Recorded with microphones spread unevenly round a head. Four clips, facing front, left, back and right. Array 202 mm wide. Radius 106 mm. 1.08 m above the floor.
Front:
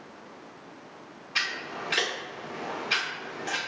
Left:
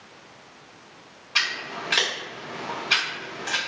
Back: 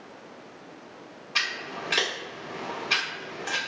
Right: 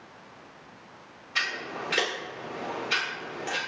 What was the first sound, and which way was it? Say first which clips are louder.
Scissors: left 2 dB, back 1 dB; 165° left.